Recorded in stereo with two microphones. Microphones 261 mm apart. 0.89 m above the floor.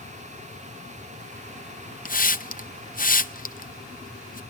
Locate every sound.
2.0 s a hiss: 35° left (ahead or behind), 0.8 m